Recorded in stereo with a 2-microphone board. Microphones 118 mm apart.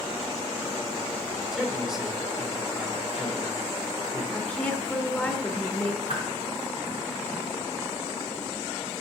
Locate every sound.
1.5 s a man speaking: 5° right (ahead or behind), 1.5 m
4.3 s a woman speaking: 10° left (ahead or behind), 1.0 m
6.1 s a whoosh: 55° right (ahead or behind), 2.5 m